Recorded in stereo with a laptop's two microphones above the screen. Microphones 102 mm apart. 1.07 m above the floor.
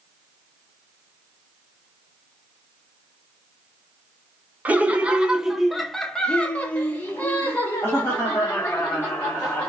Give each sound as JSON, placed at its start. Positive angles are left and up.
{"t": 4.7, "sound": "laughter", "side_deg": -15, "distance_m": 1.0}